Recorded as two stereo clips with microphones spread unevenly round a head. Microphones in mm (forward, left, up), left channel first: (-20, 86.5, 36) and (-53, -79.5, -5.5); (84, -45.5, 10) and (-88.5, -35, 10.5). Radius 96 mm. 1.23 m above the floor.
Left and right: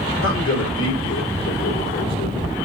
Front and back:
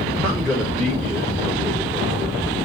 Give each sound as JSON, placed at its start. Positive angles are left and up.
{"t": 0.2, "sound": "a man speaking", "azimuth_deg": 90, "distance_m": 4.0}